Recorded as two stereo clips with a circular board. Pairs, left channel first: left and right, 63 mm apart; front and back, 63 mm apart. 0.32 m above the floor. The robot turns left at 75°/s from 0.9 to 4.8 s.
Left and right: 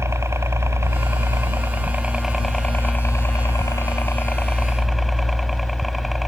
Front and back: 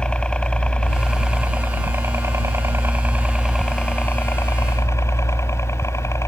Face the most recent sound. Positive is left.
turn(degrees=0)